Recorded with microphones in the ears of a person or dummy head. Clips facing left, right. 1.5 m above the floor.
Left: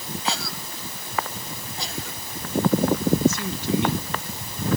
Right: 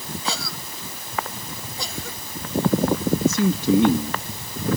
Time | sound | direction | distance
0.2 | a cough | 85° right | ?
3.2 | a man speaking | 85° right | ?